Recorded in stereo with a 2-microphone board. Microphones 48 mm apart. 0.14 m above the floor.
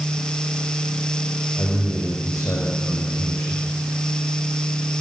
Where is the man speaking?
70° left (ahead or behind), 7 m.